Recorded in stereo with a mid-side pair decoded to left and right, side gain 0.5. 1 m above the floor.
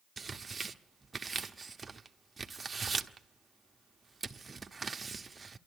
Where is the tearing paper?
25° right, 0.9 m.